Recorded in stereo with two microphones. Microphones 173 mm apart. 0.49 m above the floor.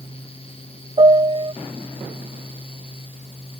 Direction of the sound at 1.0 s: 35° right (ahead or behind).